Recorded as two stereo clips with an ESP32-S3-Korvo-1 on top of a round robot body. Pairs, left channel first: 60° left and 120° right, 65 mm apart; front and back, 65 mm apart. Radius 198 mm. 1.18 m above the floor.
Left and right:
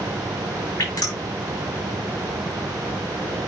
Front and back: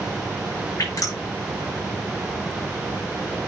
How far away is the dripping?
About 5.5 m.